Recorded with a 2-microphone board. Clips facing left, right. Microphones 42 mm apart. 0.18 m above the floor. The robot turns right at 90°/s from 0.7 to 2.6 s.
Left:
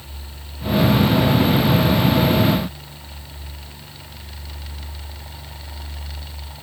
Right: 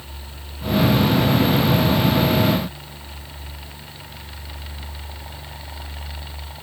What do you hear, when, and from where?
Only background noise.